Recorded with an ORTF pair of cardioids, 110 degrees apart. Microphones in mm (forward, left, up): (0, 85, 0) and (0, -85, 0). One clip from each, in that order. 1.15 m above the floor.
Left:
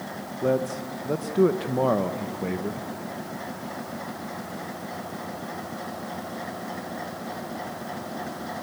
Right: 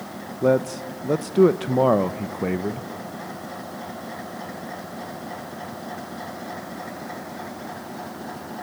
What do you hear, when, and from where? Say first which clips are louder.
0.4 s a man speaking: right 5 dB; 25° right, 0.7 m